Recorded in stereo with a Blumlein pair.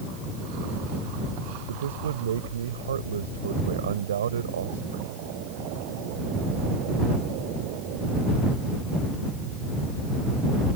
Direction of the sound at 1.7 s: 65° right.